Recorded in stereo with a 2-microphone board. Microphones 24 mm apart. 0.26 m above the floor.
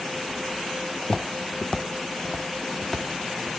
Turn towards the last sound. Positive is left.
turn(degrees=5)  # may be behind; listen again after turning